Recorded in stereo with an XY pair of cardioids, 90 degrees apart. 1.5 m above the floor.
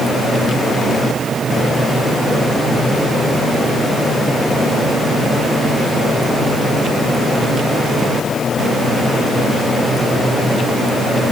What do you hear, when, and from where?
Only background noise.